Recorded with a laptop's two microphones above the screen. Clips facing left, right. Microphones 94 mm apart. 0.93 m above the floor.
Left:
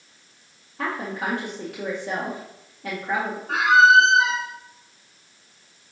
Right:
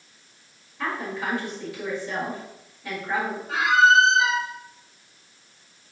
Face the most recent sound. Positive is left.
turn(degrees=60)  # may be behind; listen again after turning